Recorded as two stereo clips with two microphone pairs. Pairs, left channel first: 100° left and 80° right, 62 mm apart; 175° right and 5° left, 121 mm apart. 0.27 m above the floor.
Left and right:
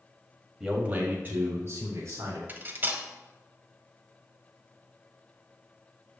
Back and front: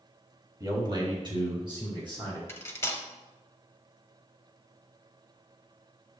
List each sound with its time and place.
0.6 s a man speaking: straight ahead, 1.3 m; by 2.4 s 40° right, 3.5 m
2.5 s cutlery clinking: 115° right, 0.7 m